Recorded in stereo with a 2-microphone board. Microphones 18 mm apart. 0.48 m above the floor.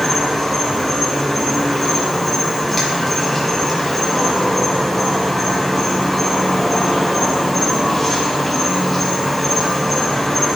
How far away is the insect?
About 4.5 m.